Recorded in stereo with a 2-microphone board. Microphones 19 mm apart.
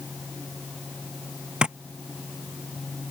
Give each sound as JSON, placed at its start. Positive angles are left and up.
{"t": 1.6, "sound": "tapping", "side_deg": -45}